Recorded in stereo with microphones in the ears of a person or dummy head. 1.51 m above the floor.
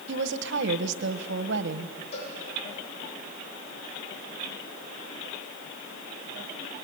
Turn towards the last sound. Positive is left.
turn(degrees=35)  # may be behind; listen again after turning